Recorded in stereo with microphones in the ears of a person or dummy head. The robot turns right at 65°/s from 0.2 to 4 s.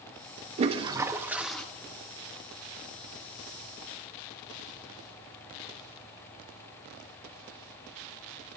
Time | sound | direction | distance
0.6 | a toilet flushing | 60° right | 1.1 m